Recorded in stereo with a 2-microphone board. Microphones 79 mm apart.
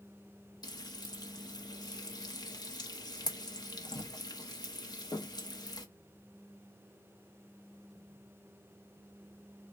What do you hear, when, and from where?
0.6 s frying: 60° left (ahead or behind), 0.9 m